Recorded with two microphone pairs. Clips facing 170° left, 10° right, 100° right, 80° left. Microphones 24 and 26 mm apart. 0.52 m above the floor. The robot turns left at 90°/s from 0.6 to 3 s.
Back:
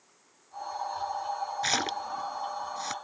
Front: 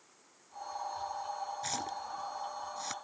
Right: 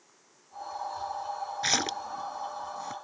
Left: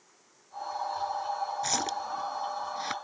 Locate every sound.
1.6 s a splash: 150° right; by 2.9 s 95° left